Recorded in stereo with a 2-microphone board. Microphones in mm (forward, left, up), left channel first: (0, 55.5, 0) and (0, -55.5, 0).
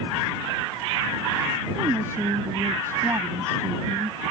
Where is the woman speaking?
20° right (ahead or behind); by 4.2 s 30° right (ahead or behind).